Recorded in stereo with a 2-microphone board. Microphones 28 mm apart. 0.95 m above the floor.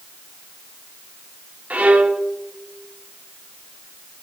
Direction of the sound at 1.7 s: 65° right (ahead or behind).